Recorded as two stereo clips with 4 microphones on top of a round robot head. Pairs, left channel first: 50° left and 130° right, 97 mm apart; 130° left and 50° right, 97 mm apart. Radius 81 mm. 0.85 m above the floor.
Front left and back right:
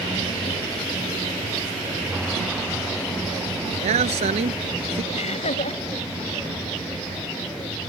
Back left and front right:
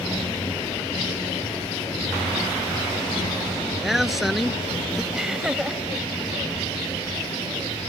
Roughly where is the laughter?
Ahead left.